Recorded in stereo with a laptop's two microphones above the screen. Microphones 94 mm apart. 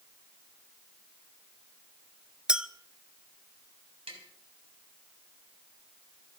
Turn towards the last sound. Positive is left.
turn(degrees=-85)